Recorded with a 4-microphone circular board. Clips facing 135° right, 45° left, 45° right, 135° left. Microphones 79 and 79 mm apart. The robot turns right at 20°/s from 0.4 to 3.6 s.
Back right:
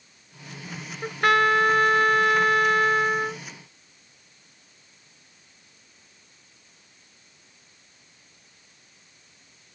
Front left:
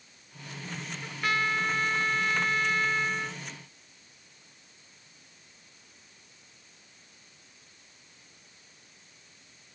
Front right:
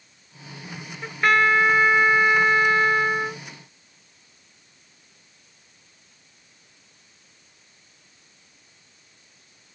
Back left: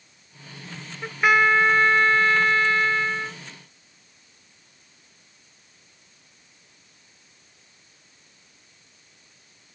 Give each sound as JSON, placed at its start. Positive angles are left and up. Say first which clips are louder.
{"t": 1.0, "sound": "a trumpet", "louder": "back right 10 dB, even", "azimuth_deg": -145}